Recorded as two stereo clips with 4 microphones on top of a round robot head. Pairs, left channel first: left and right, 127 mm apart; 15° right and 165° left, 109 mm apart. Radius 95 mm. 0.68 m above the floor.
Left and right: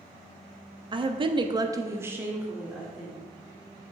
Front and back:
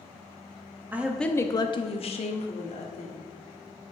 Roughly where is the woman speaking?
Behind right.